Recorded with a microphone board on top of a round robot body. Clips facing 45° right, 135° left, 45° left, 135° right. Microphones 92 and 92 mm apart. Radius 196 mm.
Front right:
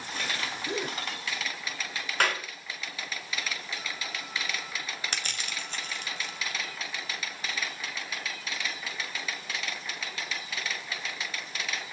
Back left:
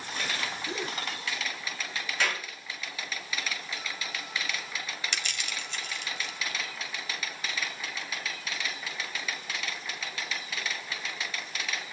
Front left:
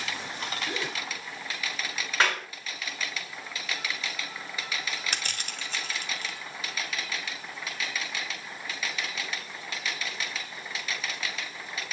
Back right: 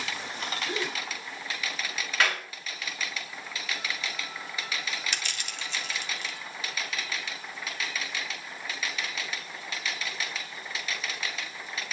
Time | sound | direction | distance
0.7 | a gasp | 30° right | 6.5 m
2.2 | a clap | 15° right | 4.5 m
5.1 | crushing | straight ahead | 2 m